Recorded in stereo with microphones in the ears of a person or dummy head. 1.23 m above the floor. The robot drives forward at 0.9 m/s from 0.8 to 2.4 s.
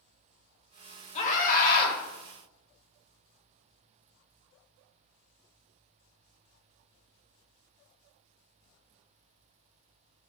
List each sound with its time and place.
1.1 s a scream: 45° left (ahead or behind), 2.5 m; by 2.0 s 60° left (ahead or behind), 2.0 m